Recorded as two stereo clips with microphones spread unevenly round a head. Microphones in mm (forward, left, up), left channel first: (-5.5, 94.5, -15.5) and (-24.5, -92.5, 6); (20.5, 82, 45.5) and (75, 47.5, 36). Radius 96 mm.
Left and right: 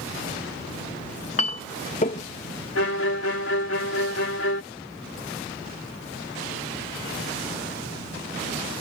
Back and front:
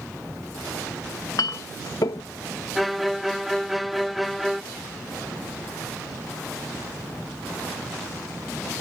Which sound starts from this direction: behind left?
A clink, at 1.4 s.